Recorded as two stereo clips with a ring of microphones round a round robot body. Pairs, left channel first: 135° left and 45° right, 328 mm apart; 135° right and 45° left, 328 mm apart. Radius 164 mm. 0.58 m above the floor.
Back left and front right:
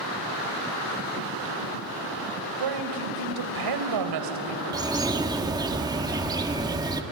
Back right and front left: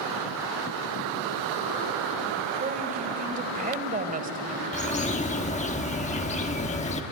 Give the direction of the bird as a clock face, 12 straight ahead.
3 o'clock.